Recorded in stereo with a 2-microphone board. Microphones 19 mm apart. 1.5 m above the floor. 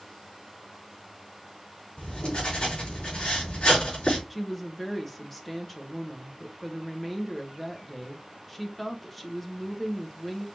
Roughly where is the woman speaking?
Centre.